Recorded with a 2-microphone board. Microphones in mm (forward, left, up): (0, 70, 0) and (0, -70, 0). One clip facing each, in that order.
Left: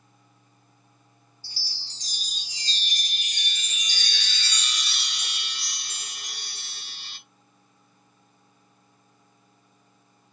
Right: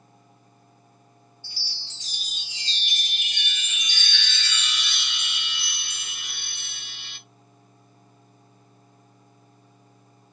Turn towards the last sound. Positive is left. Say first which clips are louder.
# left 1 dB
turn(degrees=40)  # may be behind; listen again after turning